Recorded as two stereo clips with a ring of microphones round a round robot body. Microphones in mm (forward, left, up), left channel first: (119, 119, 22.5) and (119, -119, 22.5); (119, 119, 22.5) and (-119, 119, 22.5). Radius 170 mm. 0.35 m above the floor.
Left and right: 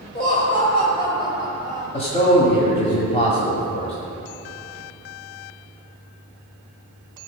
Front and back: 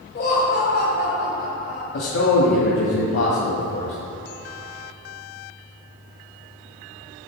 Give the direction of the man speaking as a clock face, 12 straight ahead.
11 o'clock.